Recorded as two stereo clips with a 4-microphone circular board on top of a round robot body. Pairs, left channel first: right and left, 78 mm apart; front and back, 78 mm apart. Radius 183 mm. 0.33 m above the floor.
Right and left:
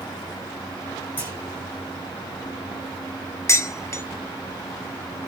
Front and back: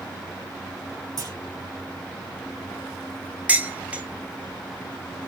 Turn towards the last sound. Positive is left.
turn(degrees=-115)